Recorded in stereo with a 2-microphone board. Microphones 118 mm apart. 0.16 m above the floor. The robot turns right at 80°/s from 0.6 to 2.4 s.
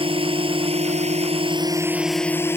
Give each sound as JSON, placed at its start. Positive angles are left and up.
{"t": 0.0, "sound": "a drone", "azimuth_deg": -125}